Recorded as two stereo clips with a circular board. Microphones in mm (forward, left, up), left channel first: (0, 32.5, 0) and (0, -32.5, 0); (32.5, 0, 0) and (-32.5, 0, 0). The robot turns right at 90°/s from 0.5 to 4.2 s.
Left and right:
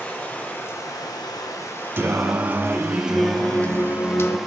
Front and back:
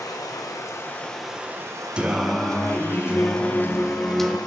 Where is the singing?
120° right, 0.5 m; by 4.4 s 85° left, 0.5 m.